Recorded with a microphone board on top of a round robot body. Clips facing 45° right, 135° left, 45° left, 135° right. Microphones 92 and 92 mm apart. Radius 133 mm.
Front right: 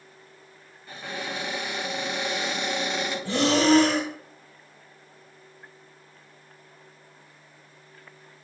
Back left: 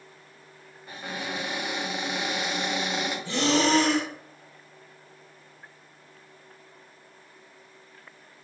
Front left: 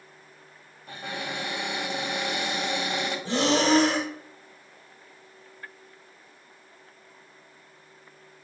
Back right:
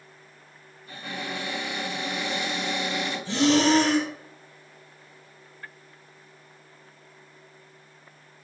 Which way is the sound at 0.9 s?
50° left.